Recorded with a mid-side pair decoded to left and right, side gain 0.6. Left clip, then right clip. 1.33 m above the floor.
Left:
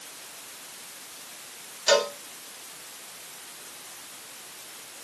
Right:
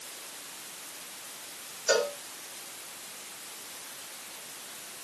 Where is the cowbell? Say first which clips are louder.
Left 4 dB; 65° left, 3 m.